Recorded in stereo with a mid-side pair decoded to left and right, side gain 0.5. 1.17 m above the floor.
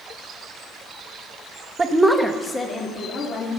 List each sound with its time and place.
1.8 s a woman speaking: 25° right, 1.0 m; by 3.5 s 55° left, 2.5 m